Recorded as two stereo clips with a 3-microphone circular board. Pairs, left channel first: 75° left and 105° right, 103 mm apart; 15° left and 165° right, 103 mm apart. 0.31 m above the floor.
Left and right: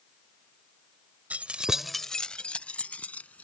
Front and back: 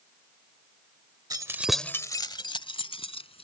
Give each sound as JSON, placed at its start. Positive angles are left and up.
{"t": 1.3, "sound": "keys jangling", "azimuth_deg": -170}